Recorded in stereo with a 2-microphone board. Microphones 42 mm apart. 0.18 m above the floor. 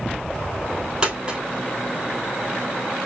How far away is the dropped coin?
About 2.5 m.